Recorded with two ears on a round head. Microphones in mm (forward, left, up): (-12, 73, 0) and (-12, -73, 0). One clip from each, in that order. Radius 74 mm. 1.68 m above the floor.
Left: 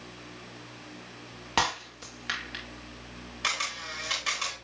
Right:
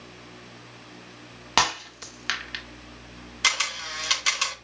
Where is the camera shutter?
80° right, 3.5 m.